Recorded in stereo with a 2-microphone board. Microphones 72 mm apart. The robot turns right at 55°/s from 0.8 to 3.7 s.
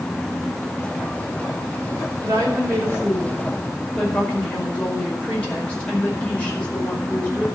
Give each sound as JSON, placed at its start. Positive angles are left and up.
{"t": 2.2, "sound": "a woman speaking", "azimuth_deg": -60, "distance_m": 5.0}